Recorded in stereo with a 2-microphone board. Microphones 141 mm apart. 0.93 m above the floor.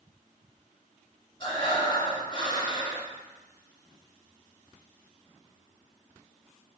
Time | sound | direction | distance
1.4 | breathing | 35° left (ahead or behind) | 3 m